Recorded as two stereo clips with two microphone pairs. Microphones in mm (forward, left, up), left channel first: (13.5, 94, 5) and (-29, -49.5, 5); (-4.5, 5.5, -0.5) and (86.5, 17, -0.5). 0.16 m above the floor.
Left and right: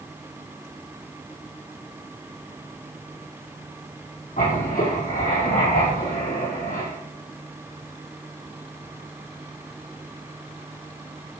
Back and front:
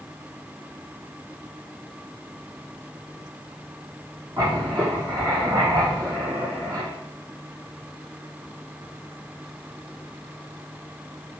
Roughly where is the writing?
Ahead left.